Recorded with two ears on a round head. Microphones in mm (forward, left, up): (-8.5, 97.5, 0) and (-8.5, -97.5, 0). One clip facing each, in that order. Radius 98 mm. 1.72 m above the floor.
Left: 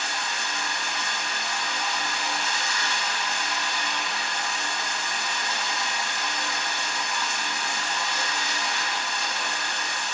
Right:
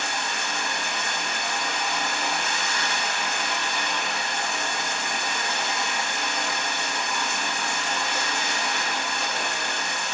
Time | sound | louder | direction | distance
0.0 | running water | right 3 dB | 45° right (ahead or behind) | 1.6 m